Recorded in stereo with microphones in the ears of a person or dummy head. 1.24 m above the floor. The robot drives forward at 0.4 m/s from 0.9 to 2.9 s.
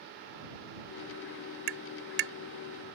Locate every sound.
1.7 s tapping: 60° right (ahead or behind)